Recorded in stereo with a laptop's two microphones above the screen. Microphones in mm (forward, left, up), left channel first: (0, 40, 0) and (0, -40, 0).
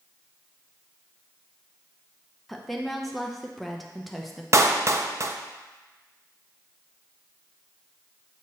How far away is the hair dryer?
No hair dryer in this recording.